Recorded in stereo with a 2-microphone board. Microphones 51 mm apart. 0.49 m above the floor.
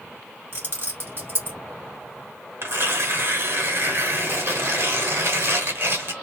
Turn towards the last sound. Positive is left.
turn(degrees=-60)  # may be behind; listen again after turning